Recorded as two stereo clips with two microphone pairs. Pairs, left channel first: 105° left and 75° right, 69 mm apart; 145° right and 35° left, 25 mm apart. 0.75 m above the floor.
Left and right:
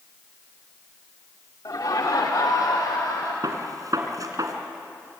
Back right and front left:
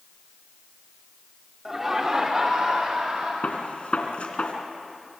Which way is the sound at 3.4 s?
105° right.